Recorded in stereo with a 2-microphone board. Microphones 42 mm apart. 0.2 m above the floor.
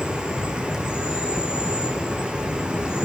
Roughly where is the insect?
Right.